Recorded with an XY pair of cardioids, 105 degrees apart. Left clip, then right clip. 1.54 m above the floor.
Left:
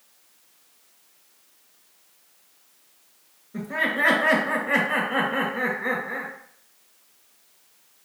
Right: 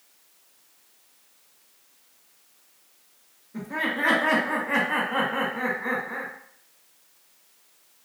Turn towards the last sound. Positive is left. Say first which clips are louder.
# left 3 dB
turn(degrees=35)